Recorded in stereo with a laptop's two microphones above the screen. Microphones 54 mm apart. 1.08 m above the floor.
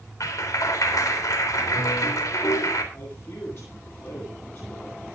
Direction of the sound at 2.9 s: 50° left (ahead or behind).